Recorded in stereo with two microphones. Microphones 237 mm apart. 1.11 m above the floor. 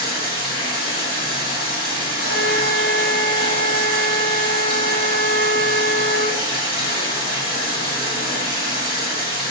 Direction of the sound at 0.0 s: 25° left (ahead or behind).